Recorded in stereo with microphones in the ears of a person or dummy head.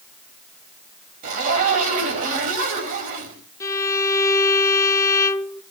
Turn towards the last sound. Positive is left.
turn(degrees=20)  # may be behind; listen again after turning